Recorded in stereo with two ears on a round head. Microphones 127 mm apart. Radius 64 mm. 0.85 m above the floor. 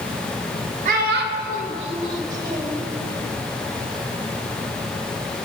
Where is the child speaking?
60° right (ahead or behind), 0.7 m; by 2.8 s 20° right (ahead or behind), 1.7 m.